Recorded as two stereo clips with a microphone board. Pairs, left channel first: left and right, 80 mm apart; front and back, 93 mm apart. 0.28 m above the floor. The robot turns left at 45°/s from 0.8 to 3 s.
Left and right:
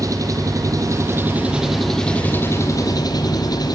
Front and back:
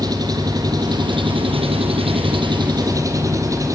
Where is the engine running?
135° right, 4.5 m; by 3.8 s 125° left, 4.5 m.